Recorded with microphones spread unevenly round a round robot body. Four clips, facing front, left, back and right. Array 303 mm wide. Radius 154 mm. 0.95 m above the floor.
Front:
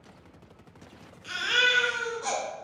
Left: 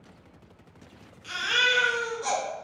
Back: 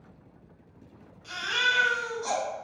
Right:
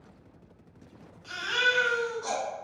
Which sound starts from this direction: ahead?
A baby crying, at 1.2 s.